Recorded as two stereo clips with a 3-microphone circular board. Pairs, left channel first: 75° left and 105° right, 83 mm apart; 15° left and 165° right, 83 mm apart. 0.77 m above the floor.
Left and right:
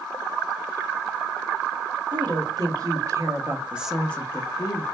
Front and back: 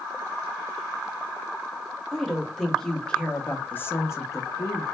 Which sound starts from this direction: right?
A woman speaking, at 2.1 s.